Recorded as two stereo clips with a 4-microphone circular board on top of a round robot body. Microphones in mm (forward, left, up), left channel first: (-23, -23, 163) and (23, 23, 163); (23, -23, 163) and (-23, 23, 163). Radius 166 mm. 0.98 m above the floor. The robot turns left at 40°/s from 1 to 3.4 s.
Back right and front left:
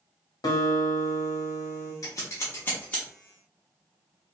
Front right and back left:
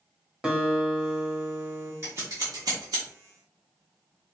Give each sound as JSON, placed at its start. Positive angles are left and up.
{"t": 0.4, "sound": "a guitar", "azimuth_deg": -145, "distance_m": 1.1}
{"t": 2.0, "sound": "scissors", "azimuth_deg": -170, "distance_m": 0.8}